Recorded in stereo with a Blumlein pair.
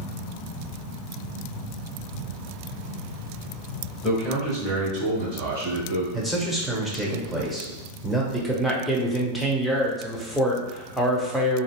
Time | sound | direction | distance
4.0 | a man speaking | 5° right | 1.1 m
6.1 | a man speaking | straight ahead | 0.8 m
8.3 | a man speaking | straight ahead | 0.7 m